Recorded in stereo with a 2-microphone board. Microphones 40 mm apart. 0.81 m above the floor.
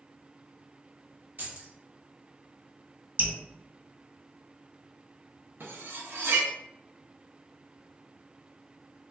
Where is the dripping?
45° right (ahead or behind), 1.5 m.